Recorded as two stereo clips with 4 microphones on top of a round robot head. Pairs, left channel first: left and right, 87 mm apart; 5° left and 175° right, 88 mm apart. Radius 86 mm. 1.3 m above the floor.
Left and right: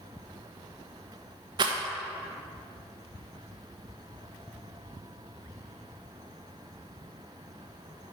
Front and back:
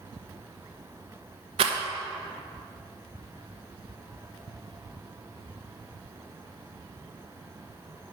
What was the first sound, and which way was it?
A rattle, 140° right.